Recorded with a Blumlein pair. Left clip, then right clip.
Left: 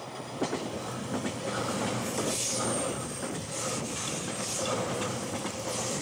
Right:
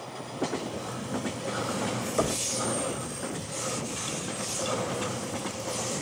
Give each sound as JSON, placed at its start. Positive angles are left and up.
{"t": 2.2, "sound": "knocking", "azimuth_deg": -70, "distance_m": 4.5}